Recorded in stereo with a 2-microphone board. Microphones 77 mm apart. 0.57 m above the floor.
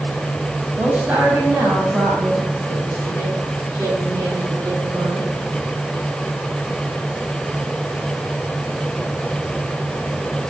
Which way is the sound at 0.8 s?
15° right (ahead or behind).